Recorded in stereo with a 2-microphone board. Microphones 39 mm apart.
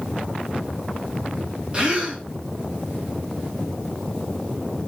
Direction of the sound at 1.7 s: 25° right (ahead or behind).